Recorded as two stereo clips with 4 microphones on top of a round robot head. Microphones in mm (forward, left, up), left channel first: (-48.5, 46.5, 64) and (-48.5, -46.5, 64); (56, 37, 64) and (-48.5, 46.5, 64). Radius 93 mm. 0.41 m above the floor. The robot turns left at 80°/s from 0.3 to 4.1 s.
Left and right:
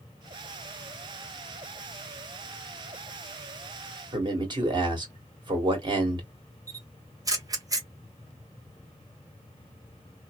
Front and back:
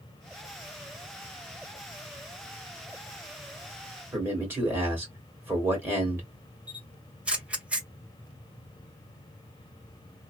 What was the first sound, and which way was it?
A man speaking, 115° right.